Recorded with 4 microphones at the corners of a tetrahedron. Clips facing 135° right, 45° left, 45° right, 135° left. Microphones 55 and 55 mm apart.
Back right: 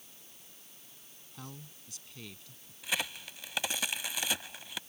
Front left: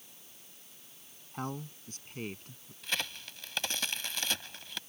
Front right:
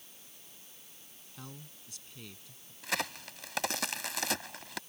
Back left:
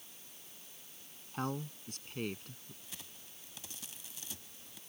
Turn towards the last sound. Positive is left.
turn(degrees=-55)